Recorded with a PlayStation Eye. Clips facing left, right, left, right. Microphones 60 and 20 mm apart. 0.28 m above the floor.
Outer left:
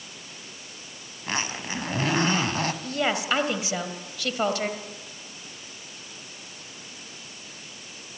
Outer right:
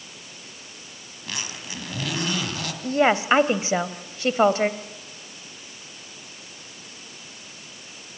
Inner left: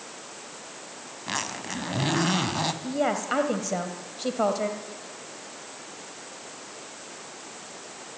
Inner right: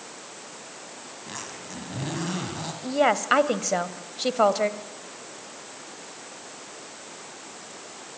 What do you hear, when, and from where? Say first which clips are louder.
1.3 s a zipper: outer left 5 dB, inner left 8 dB; 35° left (ahead or behind), 2.5 m
2.8 s a woman speaking: outer right 11 dB, inner right 9 dB; 30° right (ahead or behind), 1.7 m